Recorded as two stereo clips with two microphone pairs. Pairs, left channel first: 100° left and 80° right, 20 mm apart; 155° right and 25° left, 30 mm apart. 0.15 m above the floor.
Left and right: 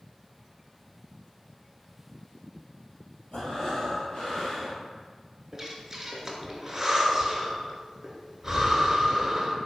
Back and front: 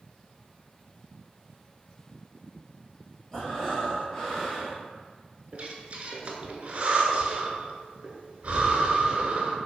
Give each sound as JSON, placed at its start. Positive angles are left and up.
{"t": 3.3, "sound": "breathing", "azimuth_deg": 140, "distance_m": 1.4}
{"t": 5.5, "sound": "breathing", "azimuth_deg": -15, "distance_m": 0.5}